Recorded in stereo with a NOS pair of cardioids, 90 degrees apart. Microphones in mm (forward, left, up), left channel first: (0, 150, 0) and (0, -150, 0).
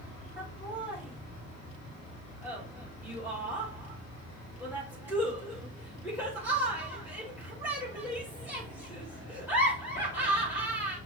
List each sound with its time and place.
0.4 s laughter: 5° right, 2 m